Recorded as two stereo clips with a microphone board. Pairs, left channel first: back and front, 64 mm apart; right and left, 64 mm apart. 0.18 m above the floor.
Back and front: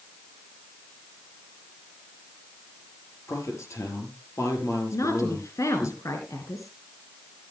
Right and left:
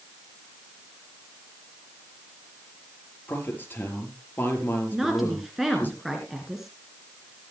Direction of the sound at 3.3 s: 145° right.